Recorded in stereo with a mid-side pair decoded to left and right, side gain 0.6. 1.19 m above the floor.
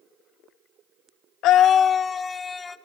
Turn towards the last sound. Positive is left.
turn(degrees=25)